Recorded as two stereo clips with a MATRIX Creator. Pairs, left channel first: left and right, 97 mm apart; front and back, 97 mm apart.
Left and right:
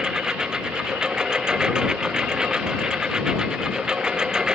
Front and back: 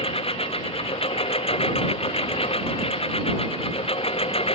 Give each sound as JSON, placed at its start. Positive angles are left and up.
{"t": 0.0, "sound": "a lawn mower", "azimuth_deg": -10}